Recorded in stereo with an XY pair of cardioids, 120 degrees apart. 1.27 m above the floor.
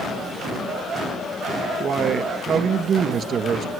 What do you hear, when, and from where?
1.8 s a man speaking: 45° right, 2 m